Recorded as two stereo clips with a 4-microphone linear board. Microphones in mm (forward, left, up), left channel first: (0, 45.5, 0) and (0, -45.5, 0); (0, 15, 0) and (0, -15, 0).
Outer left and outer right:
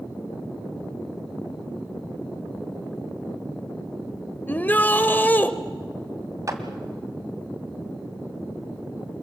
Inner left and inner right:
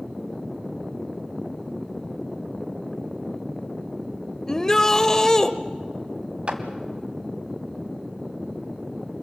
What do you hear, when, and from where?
4.5 s a shout: 20° left (ahead or behind), 0.9 m
6.5 s a clap: 40° right (ahead or behind), 1.7 m